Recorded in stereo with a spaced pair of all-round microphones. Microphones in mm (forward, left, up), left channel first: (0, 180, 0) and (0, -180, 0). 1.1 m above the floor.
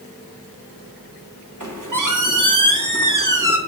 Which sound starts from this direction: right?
A squeak, at 1.6 s.